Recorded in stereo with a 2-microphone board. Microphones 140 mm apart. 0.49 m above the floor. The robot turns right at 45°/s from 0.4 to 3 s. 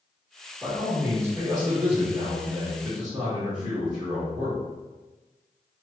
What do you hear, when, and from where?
0.6 s a man speaking: 10° right (ahead or behind), 1.5 m; by 4.6 s 25° right (ahead or behind), 1.5 m